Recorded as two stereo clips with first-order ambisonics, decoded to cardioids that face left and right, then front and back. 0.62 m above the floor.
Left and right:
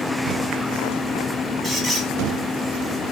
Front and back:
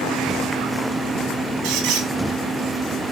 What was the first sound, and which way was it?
A squeak, 170° left.